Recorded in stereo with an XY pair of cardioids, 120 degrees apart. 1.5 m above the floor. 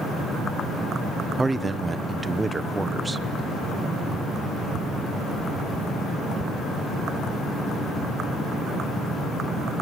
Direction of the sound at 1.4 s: 20° right.